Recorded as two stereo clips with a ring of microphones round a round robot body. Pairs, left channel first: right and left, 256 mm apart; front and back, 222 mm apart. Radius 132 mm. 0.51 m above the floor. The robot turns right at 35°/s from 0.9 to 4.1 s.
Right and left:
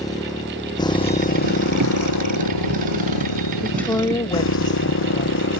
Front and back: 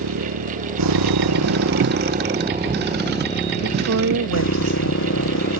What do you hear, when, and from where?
0.0 s a motorcycle: 165° right; by 5.6 s 45° right
3.6 s a woman speaking: straight behind; by 5.5 s 165° right